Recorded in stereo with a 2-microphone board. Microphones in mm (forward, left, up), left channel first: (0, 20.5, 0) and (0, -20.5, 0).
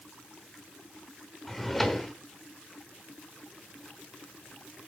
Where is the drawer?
5° left (ahead or behind), 0.9 m.